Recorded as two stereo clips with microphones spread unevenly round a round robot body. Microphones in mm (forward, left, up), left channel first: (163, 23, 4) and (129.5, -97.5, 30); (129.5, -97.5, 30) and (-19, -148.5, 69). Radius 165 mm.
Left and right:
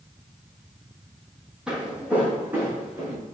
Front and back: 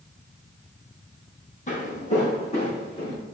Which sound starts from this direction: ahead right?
Footsteps, at 1.7 s.